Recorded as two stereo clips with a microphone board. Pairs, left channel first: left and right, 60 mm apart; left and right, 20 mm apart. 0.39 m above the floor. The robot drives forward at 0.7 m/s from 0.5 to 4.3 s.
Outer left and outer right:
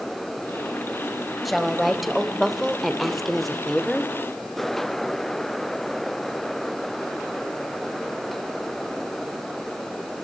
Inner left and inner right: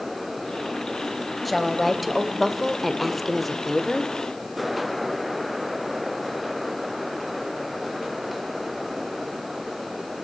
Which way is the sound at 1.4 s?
Centre (ahead or behind).